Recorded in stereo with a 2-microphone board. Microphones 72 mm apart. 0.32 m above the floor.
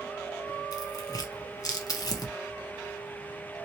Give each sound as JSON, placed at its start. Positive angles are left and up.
{"t": 0.7, "sound": "tearing paper", "side_deg": 55, "distance_m": 0.8}